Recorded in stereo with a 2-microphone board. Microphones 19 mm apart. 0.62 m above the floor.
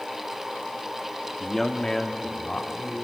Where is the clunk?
No clunk in this recording.